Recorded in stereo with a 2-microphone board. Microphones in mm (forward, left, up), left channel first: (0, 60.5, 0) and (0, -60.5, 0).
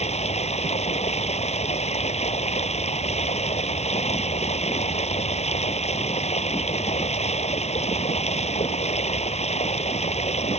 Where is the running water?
65° left (ahead or behind).